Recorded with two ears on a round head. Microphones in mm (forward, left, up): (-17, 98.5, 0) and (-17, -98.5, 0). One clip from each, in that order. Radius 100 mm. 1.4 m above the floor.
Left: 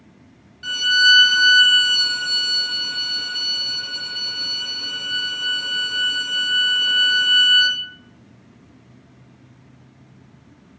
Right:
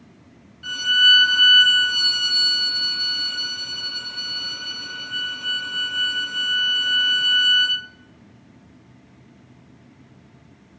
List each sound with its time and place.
0.6 s a violin: 30° left (ahead or behind), 1.4 m